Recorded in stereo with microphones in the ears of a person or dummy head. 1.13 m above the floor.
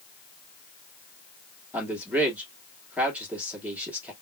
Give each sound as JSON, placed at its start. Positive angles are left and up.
{"t": 1.7, "sound": "a man speaking", "side_deg": -10, "distance_m": 2.0}